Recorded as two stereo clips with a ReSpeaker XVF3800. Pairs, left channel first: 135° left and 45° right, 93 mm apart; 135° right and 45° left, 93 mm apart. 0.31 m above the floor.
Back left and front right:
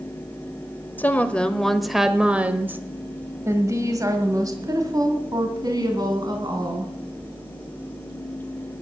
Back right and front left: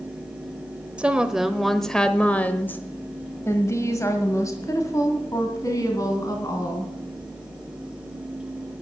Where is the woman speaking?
105° left, 1.1 m; by 6.9 s 85° right, 3 m.